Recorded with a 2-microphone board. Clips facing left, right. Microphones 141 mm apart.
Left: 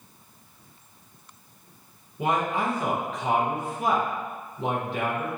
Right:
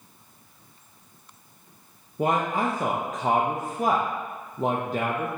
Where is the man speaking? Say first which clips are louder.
Right 1 dB; 45° right (ahead or behind), 0.5 m.